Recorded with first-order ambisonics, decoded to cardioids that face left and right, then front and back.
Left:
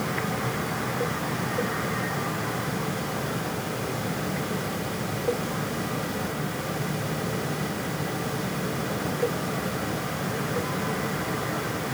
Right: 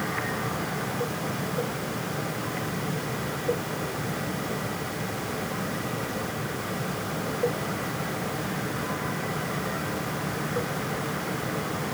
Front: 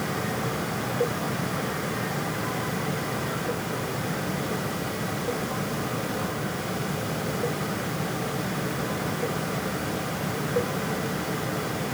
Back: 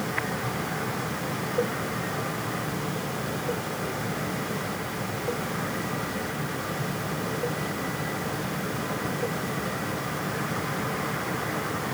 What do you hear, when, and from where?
Only background noise.